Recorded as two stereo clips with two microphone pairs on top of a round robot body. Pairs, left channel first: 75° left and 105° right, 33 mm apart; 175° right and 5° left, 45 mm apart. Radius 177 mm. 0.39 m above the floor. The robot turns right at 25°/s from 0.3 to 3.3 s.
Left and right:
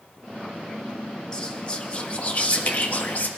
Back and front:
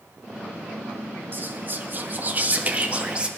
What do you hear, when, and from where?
1.3 s whispering: 10° left, 1.5 m; by 3.3 s 60° left, 1.5 m